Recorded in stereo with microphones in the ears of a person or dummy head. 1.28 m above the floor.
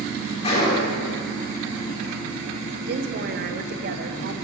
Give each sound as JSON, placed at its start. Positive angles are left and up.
{"t": 0.4, "sound": "a gunshot", "side_deg": 25, "distance_m": 3.0}
{"t": 2.9, "sound": "a woman speaking", "side_deg": -55, "distance_m": 0.9}